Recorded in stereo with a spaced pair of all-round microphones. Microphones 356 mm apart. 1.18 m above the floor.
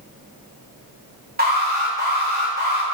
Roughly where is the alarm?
Right.